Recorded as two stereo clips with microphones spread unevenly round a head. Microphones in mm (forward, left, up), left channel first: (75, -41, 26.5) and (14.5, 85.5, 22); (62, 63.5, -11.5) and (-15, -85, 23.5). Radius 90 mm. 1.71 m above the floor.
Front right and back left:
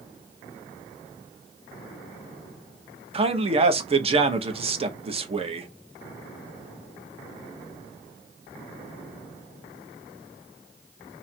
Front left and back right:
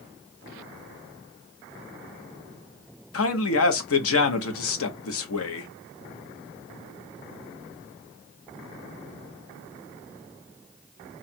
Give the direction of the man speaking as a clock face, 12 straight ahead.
10 o'clock.